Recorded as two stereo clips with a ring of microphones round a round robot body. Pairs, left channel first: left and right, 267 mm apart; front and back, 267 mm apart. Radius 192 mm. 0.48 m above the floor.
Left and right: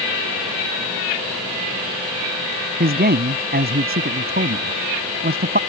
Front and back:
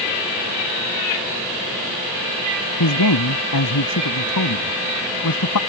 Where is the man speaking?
35° right.